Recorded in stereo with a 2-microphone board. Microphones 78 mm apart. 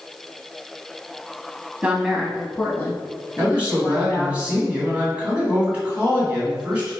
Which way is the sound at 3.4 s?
20° right (ahead or behind).